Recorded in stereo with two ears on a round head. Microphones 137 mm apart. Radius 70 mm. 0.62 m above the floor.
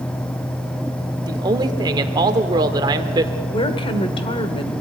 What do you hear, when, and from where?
1.3 s a man speaking: 30° right (ahead or behind), 1.6 m
3.5 s a woman speaking: 35° left (ahead or behind), 1.8 m